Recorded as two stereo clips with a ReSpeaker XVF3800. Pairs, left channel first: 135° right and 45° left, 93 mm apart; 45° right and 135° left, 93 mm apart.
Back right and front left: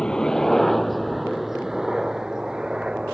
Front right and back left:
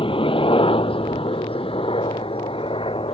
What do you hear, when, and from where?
0.0 s a helicopter: 55° right; by 3.1 s 35° right